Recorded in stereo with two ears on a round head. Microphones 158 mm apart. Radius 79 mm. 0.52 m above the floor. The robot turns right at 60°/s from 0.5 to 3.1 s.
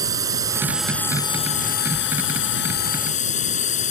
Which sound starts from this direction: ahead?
A drone, at 0.0 s.